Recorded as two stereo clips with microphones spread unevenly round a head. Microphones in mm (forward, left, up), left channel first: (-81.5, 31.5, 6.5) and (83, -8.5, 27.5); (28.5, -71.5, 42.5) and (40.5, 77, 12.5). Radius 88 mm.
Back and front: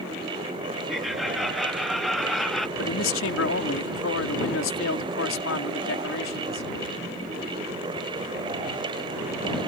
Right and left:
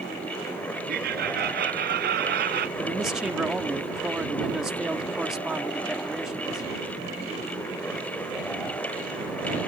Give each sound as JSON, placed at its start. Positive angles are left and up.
{"t": 0.9, "sound": "laughter", "azimuth_deg": 75}
{"t": 2.8, "sound": "a man speaking", "azimuth_deg": 175}